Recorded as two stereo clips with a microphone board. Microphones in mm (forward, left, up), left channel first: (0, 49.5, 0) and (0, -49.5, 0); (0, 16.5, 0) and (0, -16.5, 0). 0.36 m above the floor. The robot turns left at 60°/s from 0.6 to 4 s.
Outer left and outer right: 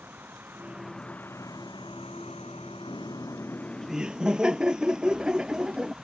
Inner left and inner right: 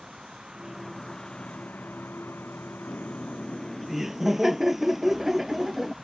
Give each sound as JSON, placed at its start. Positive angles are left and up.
{"t": 0.0, "sound": "a vehicle", "azimuth_deg": -160}
{"t": 2.9, "sound": "laughter", "azimuth_deg": 60}